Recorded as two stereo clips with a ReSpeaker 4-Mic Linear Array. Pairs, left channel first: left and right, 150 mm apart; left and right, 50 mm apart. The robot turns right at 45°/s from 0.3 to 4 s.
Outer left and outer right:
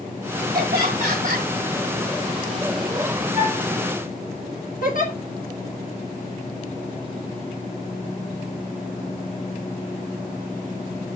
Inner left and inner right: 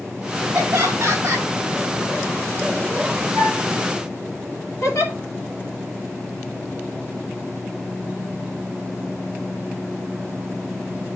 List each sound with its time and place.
0.5 s laughter: 90° right, 5 m; by 1.5 s 50° right, 5 m
3.4 s a flute: 45° left (ahead or behind), 4.5 m; by 3.6 s 55° left (ahead or behind), 4.5 m
4.8 s a giggle: 60° left (ahead or behind), 3 m